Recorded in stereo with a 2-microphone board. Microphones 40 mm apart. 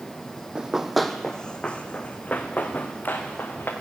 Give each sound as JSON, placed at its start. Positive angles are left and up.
{"t": 0.6, "sound": "running footsteps", "side_deg": -20, "distance_m": 0.8}